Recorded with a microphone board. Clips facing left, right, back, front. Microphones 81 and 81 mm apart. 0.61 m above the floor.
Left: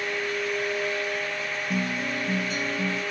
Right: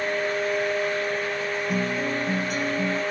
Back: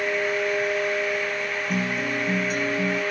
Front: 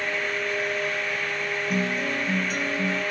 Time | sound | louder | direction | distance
1.7 | a guitar | right 1 dB, even | 90° right | 2.5 m